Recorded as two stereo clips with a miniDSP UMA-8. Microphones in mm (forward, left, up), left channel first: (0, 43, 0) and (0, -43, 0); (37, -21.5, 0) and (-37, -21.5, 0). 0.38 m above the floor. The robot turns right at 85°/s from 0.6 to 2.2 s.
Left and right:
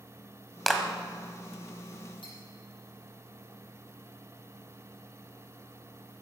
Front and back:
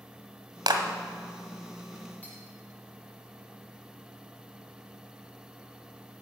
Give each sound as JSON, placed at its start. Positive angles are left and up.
{"t": 0.7, "sound": "a clap", "azimuth_deg": 175, "distance_m": 1.4}
{"t": 2.2, "sound": "cutlery clinking", "azimuth_deg": 70, "distance_m": 6.0}